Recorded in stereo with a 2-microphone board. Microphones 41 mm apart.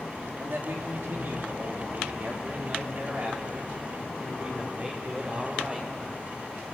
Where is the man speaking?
65° right (ahead or behind), 3.5 m; by 5.9 s 25° right (ahead or behind), 6 m.